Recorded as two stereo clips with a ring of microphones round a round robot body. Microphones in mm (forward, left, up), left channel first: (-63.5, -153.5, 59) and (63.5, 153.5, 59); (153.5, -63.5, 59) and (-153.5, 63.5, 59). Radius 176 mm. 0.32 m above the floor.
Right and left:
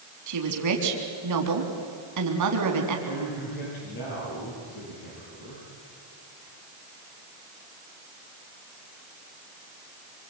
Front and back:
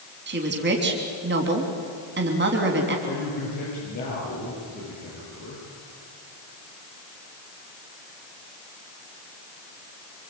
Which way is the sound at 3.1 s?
85° right.